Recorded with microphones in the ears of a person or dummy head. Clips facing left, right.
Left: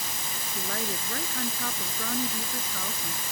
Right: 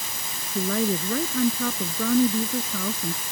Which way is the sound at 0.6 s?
75° right (ahead or behind).